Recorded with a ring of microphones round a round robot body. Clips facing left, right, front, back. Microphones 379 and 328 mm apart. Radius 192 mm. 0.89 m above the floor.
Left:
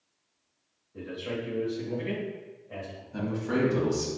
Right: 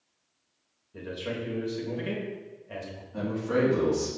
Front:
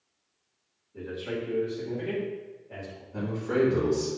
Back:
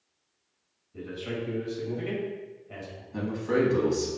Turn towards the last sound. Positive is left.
turn(degrees=120)